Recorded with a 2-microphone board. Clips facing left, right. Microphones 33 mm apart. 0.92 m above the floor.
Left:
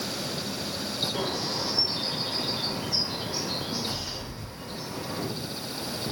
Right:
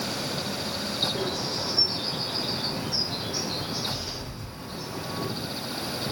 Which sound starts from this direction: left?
A bird, at 1.1 s.